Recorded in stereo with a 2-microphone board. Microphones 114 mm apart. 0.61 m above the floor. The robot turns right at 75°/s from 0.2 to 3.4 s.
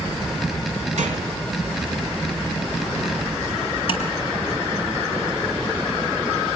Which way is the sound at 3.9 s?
45° left (ahead or behind).